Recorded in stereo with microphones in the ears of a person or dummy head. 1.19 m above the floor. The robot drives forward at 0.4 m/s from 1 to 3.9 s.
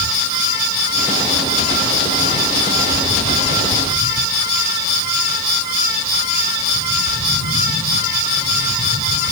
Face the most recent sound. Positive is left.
No sound to turn to.